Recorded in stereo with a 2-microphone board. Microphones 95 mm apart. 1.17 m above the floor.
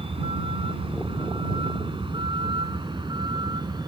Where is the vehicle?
75° right (ahead or behind); by 3.9 s 50° right (ahead or behind).